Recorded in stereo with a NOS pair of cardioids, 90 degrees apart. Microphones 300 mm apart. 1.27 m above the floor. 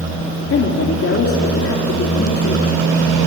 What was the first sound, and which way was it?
A woman speaking, 50° left.